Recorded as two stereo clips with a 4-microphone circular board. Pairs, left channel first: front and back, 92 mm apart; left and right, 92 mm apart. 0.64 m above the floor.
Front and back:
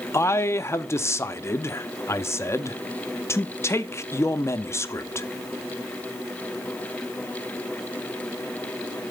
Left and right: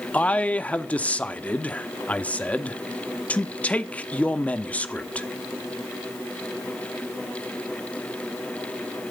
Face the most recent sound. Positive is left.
turn(degrees=30)